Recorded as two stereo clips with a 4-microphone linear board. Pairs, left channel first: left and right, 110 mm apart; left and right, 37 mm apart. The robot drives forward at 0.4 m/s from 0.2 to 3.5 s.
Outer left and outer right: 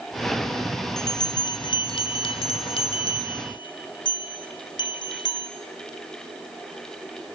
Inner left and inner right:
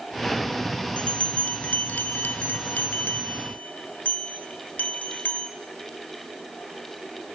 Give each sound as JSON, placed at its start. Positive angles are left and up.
{"t": 1.0, "sound": "a bell", "side_deg": 35, "distance_m": 1.0}